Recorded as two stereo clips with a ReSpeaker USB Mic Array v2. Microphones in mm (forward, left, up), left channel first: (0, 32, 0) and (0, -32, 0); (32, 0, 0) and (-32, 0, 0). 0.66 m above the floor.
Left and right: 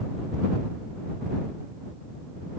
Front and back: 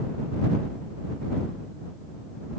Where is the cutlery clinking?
No cutlery clinking in this recording.